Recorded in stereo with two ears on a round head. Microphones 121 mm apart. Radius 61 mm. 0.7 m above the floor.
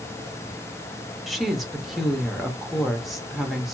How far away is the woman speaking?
About 0.8 m.